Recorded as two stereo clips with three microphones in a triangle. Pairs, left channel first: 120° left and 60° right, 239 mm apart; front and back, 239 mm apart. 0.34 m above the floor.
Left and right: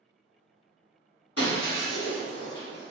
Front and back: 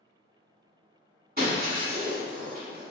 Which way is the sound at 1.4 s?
130° left.